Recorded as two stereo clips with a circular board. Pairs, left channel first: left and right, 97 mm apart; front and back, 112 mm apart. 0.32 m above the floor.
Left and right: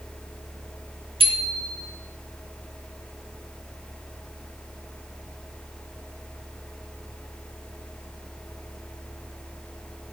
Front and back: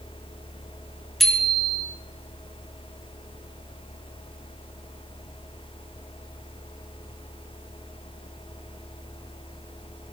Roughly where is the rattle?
No rattle in this recording.